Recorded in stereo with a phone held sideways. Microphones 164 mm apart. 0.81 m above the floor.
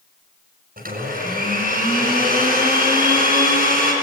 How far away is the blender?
About 6 m.